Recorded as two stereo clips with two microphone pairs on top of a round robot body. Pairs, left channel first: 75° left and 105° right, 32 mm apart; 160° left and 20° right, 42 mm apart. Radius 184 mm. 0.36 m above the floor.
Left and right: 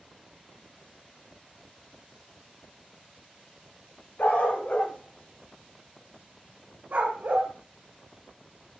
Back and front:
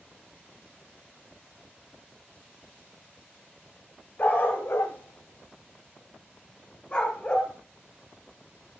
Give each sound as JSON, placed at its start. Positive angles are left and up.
{"t": 4.2, "sound": "a dog barking", "azimuth_deg": 105, "distance_m": 1.3}